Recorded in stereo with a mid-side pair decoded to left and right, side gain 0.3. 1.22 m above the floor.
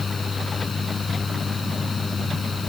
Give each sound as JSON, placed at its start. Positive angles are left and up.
{"t": 0.0, "sound": "a fan", "azimuth_deg": 50}